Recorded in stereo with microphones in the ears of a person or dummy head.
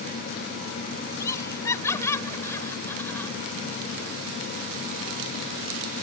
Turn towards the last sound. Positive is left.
turn(degrees=15)  # may be behind; listen again after turning